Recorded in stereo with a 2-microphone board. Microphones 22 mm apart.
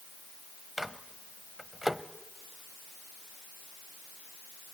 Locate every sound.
0.8 s a microwave: 15° right (ahead or behind), 0.8 m